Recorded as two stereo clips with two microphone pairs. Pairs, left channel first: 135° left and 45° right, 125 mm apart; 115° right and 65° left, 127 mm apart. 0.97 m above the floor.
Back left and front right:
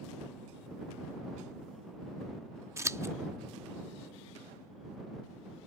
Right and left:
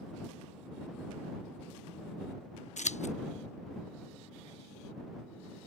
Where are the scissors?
105° right.